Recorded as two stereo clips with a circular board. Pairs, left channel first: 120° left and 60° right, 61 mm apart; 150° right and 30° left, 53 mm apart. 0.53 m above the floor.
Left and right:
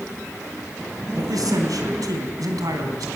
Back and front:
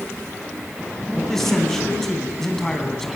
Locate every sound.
1.1 s a man speaking: 65° right, 3.5 m